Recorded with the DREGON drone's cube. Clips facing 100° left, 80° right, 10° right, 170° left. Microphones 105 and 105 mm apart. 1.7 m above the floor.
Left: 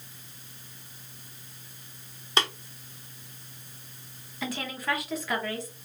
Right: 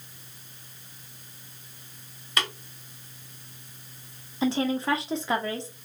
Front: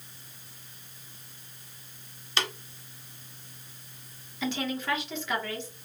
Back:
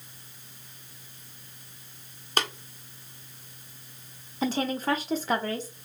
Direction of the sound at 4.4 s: 140° right.